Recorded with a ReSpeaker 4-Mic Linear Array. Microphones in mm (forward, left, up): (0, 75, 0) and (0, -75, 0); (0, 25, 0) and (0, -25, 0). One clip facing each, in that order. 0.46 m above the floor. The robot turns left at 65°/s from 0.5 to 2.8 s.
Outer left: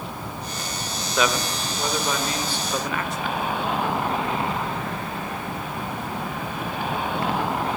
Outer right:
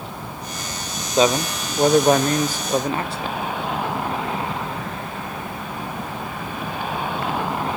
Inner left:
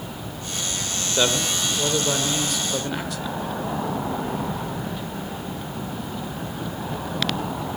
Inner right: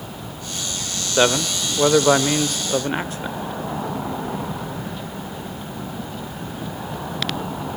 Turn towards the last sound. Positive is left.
turn(degrees=-140)